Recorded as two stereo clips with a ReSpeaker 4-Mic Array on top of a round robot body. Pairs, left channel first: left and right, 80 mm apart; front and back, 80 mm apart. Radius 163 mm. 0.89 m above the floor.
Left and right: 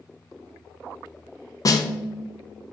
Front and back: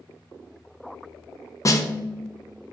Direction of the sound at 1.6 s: 50° left.